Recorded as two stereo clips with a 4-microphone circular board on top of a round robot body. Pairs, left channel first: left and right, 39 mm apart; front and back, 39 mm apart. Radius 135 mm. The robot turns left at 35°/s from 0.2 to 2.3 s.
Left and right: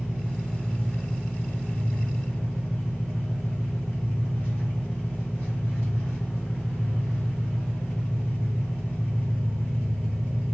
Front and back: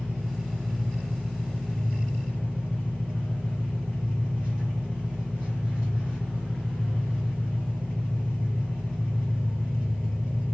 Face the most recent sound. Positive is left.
turn(degrees=50)